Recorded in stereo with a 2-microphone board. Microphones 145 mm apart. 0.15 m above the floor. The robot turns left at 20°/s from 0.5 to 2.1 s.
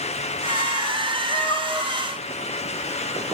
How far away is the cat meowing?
About 2.5 m.